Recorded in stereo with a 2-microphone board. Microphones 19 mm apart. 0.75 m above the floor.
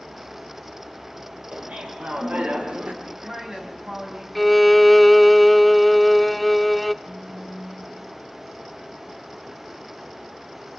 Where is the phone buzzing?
55° right (ahead or behind), 5 m.